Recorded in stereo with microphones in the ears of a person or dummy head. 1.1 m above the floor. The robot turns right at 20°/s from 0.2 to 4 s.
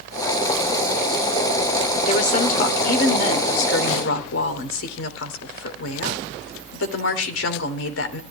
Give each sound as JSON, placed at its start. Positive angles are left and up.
{"t": 2.1, "sound": "a woman speaking", "azimuth_deg": 45, "distance_m": 3.0}